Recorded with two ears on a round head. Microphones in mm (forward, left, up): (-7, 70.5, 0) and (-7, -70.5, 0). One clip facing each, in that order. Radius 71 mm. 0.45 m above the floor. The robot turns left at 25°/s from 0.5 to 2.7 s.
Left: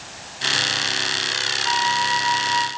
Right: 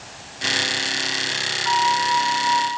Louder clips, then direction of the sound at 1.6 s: Right 3 dB; 25° left (ahead or behind).